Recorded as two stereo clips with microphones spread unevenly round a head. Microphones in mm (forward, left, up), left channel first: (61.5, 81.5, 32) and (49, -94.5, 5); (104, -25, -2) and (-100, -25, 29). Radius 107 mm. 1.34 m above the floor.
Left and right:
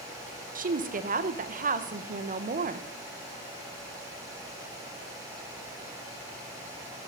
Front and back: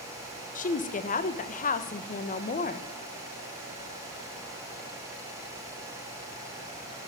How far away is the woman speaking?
About 1.2 m.